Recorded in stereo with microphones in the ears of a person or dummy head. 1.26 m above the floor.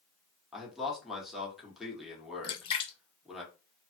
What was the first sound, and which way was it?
A man speaking, 5° left (ahead or behind).